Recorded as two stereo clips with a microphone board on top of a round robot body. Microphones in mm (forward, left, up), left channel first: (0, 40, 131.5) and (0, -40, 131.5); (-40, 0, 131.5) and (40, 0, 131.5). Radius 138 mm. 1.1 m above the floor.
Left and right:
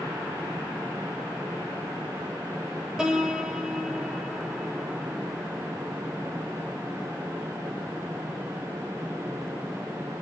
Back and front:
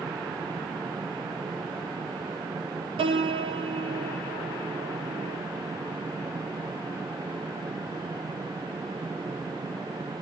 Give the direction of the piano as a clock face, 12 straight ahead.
12 o'clock.